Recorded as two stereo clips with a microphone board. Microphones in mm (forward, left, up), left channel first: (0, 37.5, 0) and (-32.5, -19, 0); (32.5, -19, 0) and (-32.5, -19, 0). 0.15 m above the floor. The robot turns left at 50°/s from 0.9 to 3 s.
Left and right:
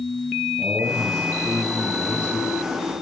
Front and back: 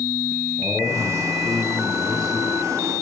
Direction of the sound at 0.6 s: 115° right.